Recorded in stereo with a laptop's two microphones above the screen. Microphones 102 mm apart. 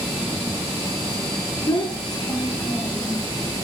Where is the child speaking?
40° left (ahead or behind), 1.4 m.